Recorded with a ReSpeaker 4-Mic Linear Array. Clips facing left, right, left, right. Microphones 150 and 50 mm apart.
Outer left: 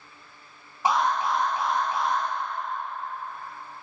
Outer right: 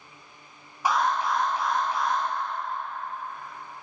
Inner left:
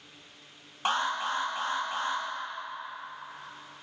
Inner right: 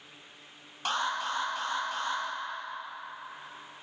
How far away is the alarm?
About 1.0 m.